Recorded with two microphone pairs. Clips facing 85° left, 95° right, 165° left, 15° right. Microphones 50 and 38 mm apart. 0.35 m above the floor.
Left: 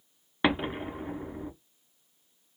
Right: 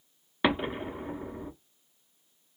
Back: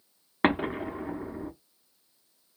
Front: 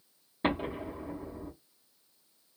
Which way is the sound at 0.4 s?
170° left.